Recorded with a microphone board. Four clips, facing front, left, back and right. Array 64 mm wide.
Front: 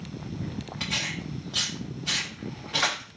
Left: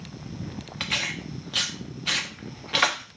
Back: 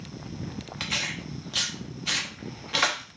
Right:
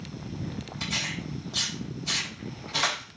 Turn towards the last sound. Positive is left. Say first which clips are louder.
# left 3 dB, back 1 dB
turn(degrees=105)